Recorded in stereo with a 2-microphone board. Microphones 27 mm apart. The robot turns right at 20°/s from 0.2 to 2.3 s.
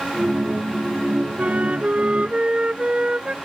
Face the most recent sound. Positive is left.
turn(degrees=-40)  # may be behind; listen again after turning